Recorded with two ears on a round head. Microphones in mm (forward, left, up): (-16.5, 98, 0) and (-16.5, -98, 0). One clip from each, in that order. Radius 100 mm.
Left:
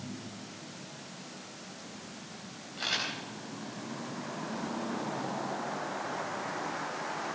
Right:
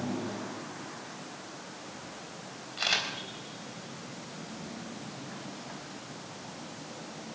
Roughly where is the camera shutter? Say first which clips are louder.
Right 3 dB; right.